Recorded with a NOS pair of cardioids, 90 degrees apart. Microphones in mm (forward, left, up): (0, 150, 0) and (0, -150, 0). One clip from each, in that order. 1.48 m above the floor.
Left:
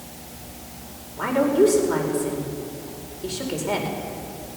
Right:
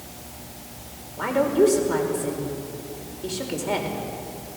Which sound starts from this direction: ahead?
A woman speaking, at 1.2 s.